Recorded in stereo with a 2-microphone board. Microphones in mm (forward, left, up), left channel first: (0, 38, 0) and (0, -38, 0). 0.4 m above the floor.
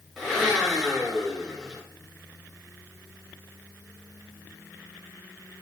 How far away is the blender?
About 1.0 m.